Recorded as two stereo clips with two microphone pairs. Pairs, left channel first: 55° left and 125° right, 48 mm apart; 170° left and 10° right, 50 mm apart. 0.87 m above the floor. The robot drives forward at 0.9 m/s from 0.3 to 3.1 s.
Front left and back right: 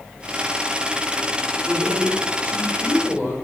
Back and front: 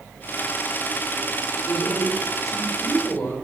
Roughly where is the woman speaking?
Behind.